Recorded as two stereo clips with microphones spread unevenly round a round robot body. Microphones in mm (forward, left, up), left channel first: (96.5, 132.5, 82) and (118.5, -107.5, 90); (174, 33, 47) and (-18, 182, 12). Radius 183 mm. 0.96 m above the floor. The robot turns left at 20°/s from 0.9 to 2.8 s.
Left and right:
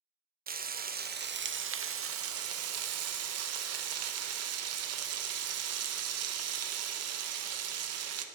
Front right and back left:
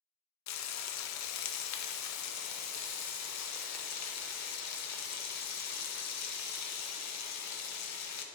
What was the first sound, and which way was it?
Frying, 30° right.